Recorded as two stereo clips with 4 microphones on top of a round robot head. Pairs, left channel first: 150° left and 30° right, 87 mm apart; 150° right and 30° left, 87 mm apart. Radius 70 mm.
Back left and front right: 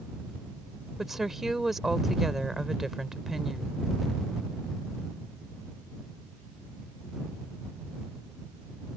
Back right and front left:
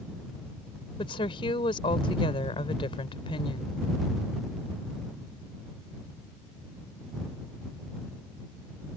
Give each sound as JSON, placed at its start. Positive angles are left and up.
{"t": 1.0, "sound": "a woman speaking", "azimuth_deg": -120}